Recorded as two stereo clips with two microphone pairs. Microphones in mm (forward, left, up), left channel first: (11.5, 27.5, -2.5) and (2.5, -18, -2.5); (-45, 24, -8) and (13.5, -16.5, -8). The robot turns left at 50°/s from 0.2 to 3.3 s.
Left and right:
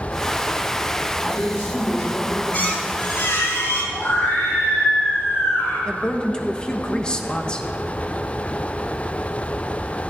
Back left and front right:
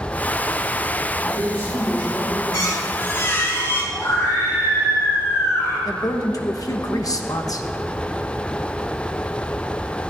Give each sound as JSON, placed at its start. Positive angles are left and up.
{"t": 1.2, "sound": "a woman speaking", "azimuth_deg": 120, "distance_m": 5.0}
{"t": 2.5, "sound": "a squeak", "azimuth_deg": 130, "distance_m": 3.0}
{"t": 3.9, "sound": "a scream", "azimuth_deg": 105, "distance_m": 2.5}
{"t": 5.8, "sound": "a woman speaking", "azimuth_deg": 145, "distance_m": 1.0}